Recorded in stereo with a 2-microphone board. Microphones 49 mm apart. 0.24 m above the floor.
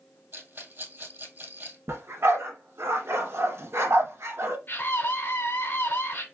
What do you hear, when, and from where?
0.3 s a rattle: 45° right (ahead or behind), 2 m
1.9 s a dog barking: 60° right (ahead or behind), 1.2 m
4.7 s a scream: 45° left (ahead or behind), 1.9 m